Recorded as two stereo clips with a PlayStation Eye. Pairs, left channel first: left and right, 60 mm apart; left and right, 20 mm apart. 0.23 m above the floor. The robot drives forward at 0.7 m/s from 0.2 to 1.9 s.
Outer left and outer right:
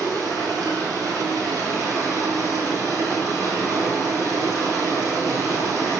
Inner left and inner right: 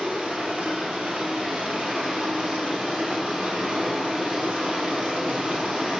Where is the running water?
80° right, 1.9 m; by 6.0 s 65° right (ahead or behind), 2 m.